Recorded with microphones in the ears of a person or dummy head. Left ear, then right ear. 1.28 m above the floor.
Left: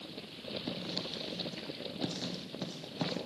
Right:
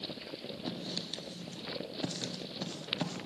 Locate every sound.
0.7 s writing: 15° right (ahead or behind), 0.5 m